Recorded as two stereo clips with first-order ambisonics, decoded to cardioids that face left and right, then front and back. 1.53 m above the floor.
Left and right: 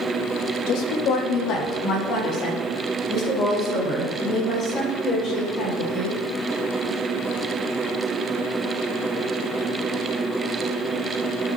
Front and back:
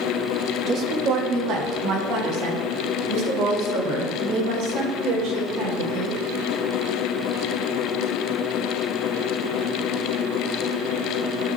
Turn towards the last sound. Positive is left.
turn(degrees=150)